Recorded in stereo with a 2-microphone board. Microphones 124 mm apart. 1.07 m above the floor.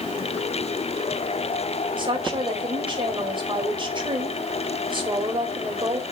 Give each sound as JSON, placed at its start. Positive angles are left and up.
{"t": 2.0, "sound": "a woman speaking", "side_deg": -40, "distance_m": 5.0}